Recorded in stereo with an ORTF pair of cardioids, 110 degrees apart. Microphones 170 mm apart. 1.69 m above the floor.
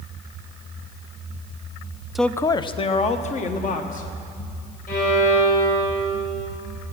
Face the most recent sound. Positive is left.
turn(degrees=50)